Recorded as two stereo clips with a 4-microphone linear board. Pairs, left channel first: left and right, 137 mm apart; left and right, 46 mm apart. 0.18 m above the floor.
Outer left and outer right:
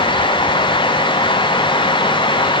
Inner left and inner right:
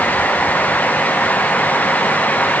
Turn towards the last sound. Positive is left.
No sound to turn to.